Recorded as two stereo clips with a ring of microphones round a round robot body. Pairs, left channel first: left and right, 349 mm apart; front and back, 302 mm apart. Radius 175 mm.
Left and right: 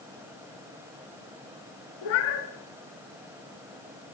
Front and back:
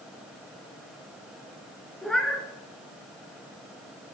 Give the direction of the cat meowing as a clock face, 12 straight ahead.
9 o'clock.